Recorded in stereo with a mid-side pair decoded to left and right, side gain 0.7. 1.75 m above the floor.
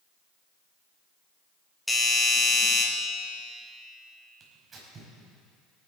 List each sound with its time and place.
1.9 s a doorbell: 5° left, 3 m
4.4 s tearing paper: 30° right, 4.5 m